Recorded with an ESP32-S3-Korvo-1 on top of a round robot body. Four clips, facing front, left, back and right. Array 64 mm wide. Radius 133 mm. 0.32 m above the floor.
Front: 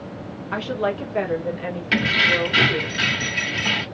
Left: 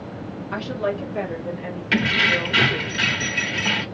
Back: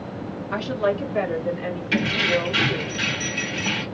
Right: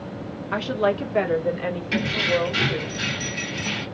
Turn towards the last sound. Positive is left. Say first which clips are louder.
# left 4 dB, front 3 dB
turn(degrees=50)